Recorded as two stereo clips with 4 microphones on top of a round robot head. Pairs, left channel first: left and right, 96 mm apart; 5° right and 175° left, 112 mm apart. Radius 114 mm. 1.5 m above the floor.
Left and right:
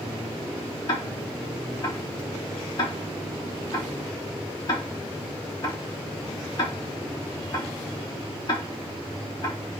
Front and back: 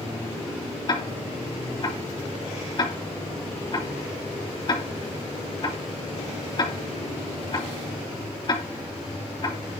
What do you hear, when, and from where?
0.9 s ticking: 40° left, 3.5 m